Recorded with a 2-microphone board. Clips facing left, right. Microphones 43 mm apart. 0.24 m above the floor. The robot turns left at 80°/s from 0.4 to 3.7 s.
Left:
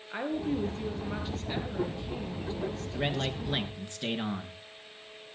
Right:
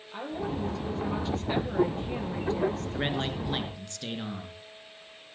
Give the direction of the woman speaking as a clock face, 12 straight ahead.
9 o'clock.